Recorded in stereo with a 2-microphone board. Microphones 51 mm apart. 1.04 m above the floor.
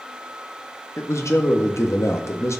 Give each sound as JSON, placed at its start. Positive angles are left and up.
{"t": 1.0, "sound": "a man speaking", "side_deg": 70, "distance_m": 1.7}